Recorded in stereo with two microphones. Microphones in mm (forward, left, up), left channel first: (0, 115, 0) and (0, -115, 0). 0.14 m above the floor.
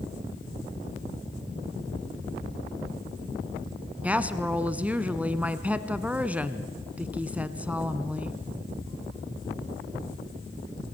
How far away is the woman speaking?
About 1.0 m.